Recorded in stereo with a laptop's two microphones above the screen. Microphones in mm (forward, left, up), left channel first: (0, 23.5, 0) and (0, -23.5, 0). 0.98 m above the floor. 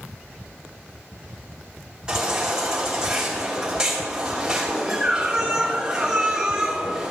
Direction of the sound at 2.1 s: 15° right (ahead or behind).